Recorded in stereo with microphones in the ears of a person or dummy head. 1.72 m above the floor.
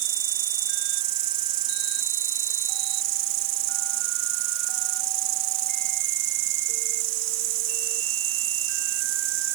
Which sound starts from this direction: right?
An insect, at 0.0 s.